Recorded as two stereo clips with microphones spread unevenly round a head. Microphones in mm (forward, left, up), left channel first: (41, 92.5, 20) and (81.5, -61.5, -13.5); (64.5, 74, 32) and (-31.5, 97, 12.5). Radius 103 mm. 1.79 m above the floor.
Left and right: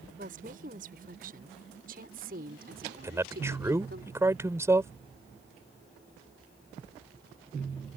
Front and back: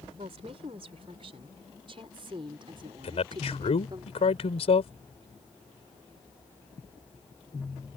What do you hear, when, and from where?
0.2 s a woman speaking: 130° right; by 4.0 s 125° right
3.0 s a man speaking: straight ahead